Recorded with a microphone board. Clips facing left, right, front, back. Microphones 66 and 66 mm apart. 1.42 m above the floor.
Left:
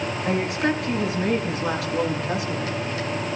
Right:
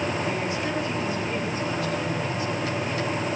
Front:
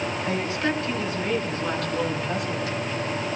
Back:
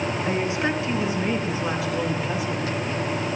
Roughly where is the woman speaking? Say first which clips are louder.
Left 4 dB, back 1 dB; left.